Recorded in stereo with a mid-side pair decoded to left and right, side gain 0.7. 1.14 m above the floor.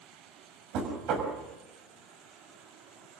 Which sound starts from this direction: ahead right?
Knocking, at 0.7 s.